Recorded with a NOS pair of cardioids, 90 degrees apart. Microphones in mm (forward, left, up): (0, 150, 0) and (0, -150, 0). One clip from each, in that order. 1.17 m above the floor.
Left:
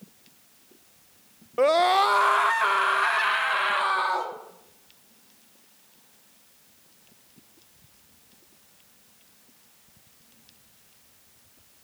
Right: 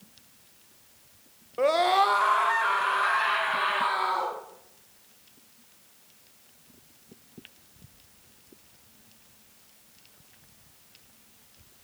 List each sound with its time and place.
1.6 s a scream: 25° left, 0.7 m; by 4.3 s 75° left, 2.5 m